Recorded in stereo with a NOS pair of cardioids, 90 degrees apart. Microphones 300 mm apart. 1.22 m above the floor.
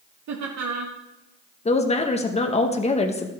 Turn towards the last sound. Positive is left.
turn(degrees=20)